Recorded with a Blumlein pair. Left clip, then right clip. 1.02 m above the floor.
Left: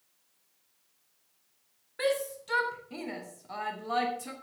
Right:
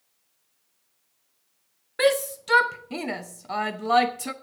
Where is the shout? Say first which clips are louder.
Right 8 dB; 60° right, 0.9 m.